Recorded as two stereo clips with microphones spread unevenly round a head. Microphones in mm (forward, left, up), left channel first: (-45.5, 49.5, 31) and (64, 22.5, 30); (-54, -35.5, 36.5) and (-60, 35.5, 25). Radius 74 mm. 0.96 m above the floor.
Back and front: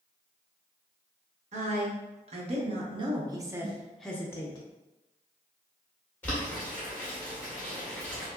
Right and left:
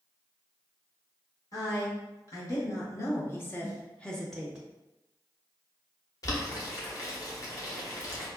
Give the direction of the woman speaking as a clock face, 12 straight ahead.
1 o'clock.